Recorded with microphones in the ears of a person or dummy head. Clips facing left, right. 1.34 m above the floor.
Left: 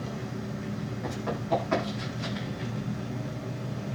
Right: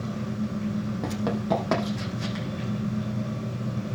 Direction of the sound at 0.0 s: 80° right.